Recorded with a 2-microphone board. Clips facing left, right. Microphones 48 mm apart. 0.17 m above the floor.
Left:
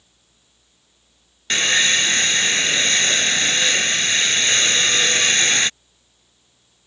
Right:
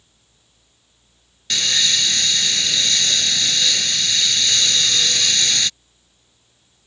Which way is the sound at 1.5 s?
35° left (ahead or behind).